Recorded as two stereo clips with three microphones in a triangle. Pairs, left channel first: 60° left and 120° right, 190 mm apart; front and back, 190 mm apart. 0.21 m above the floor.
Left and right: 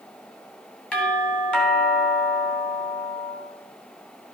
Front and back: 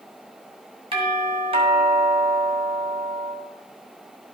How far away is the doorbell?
About 2.5 m.